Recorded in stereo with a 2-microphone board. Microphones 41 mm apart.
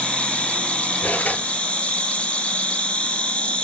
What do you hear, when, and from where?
0.0 s an insect: 30° left (ahead or behind), 1.8 m
1.0 s cutlery clinking: 45° left (ahead or behind), 4.5 m